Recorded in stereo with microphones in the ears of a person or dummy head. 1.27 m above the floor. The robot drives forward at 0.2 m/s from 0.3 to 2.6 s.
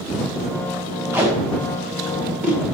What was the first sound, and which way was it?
Tape being pulled, 10° right (ahead or behind).